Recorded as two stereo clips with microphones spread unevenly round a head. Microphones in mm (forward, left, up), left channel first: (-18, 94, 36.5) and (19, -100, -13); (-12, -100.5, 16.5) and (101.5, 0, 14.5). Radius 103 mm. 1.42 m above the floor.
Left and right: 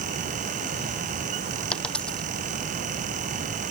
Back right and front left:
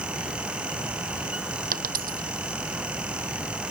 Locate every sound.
1.7 s a dropped coin: 15° left